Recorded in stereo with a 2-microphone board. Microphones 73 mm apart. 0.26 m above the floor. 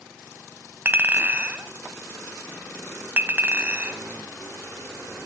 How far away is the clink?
About 1.0 m.